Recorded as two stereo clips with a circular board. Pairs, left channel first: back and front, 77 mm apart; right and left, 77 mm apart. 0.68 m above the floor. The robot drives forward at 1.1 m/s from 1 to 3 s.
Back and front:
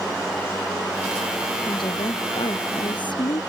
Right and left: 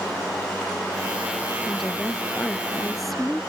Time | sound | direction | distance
1.7 | a woman speaking | straight behind | ?